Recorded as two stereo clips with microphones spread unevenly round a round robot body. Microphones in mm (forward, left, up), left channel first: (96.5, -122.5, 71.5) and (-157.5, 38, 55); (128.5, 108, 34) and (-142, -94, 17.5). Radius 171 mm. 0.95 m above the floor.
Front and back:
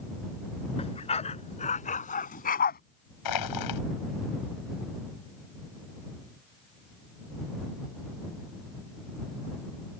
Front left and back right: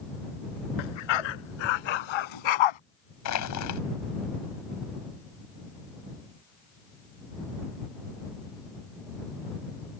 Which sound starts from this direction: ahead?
Crushing, at 3.2 s.